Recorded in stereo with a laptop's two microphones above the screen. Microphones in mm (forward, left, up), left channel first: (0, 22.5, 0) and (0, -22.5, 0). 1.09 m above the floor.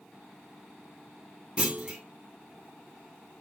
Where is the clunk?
20° right (ahead or behind), 0.7 m.